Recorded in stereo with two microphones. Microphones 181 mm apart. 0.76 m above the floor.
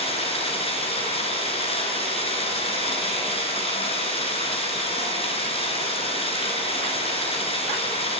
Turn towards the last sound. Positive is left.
turn(degrees=30)  # may be behind; listen again after turning